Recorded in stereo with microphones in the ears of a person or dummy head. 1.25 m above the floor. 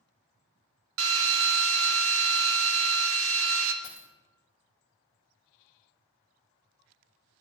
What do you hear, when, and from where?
1.0 s a drill: 85° right, 0.9 m
3.8 s a dropped coin: 20° right (ahead or behind), 1.1 m